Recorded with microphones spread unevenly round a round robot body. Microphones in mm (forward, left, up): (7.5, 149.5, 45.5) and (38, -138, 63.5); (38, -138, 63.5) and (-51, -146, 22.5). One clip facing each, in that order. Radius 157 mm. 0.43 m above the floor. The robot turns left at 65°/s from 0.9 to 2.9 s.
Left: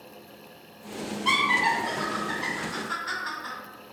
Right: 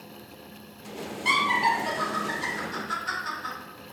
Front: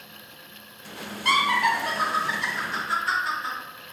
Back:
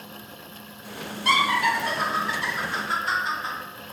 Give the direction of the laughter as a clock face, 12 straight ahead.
1 o'clock.